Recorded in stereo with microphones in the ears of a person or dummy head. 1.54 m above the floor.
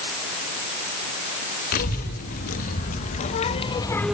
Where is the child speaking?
50° left (ahead or behind), 3 m; by 4.1 s centre (ahead or behind), 0.6 m.